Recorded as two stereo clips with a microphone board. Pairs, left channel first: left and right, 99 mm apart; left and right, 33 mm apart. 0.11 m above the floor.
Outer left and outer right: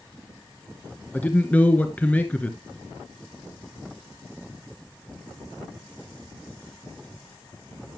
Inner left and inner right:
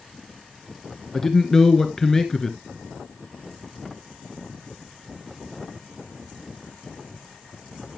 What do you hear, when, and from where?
1.1 s a man speaking: 15° left (ahead or behind), 1.3 m